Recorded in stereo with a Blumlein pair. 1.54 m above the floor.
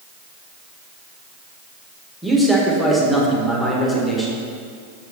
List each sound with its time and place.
2.2 s a man speaking: 5° left, 1.5 m